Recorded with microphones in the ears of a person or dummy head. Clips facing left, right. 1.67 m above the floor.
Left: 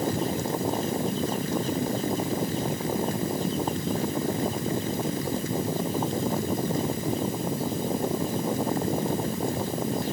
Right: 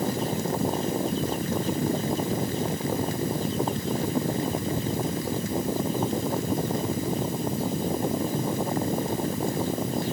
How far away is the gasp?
I don't hear a gasp.